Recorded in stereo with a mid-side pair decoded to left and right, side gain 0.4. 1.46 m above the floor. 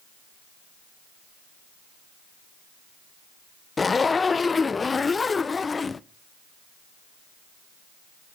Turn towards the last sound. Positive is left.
turn(degrees=35)